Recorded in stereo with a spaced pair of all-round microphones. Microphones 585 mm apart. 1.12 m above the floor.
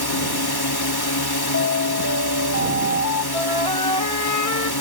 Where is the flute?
70° left (ahead or behind).